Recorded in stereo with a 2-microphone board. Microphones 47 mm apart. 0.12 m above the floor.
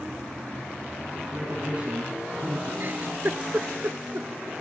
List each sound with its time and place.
1.3 s a man speaking: 35° right (ahead or behind), 3.5 m
2.8 s a giggle: 50° right (ahead or behind), 0.5 m